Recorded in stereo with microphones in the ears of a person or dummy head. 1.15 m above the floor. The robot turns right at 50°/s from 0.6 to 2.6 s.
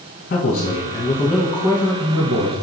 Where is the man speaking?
130° left, 1.4 m; by 2.5 s 135° right, 1.4 m.